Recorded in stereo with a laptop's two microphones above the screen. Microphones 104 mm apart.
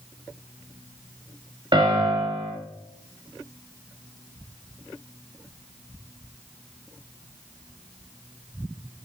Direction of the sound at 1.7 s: 50° right (ahead or behind).